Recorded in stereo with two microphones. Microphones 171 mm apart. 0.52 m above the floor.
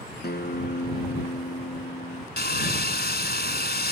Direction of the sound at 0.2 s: 70° left (ahead or behind).